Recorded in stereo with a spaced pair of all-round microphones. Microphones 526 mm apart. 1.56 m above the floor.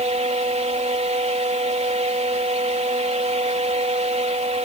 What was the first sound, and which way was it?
A fan, 10° right (ahead or behind).